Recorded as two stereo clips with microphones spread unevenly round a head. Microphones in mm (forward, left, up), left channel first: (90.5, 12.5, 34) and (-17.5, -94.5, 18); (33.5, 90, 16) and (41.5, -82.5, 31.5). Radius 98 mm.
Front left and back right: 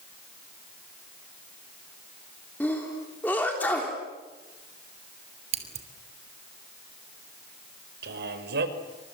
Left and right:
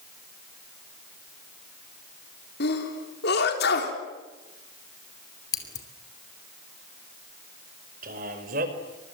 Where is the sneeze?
125° left, 3.5 m.